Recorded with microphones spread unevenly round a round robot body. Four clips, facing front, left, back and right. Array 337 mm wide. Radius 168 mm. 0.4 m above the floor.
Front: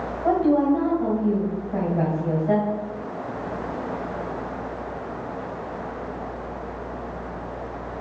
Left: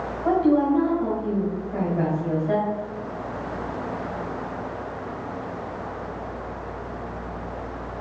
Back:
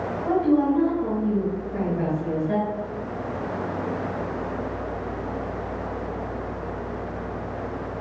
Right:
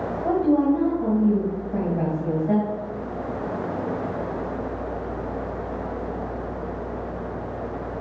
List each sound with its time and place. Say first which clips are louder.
0.2 s a woman speaking: left 1 dB, front 1 dB; 10° left, 2.5 m